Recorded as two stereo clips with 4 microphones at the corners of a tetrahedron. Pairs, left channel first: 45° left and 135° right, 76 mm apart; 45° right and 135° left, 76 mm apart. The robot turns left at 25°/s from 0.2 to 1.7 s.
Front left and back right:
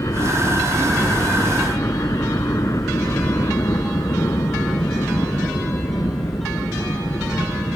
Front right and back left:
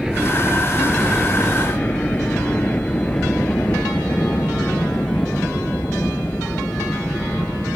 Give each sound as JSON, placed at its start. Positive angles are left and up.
{"t": 0.0, "sound": "a helicopter", "azimuth_deg": 55}